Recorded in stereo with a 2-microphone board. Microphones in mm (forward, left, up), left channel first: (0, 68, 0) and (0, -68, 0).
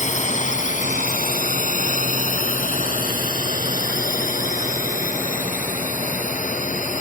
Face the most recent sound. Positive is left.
turn(degrees=70)  # may be behind; listen again after turning